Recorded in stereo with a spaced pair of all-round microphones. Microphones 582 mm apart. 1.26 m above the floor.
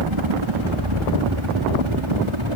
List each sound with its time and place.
0.0 s a helicopter: 55° right (ahead or behind)